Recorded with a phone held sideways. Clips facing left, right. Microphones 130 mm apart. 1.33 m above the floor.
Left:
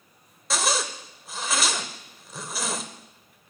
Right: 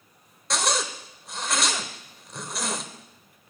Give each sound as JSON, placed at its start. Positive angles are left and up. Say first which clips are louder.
{"t": 0.5, "sound": "a zipper", "louder": "even", "side_deg": 0, "distance_m": 1.2}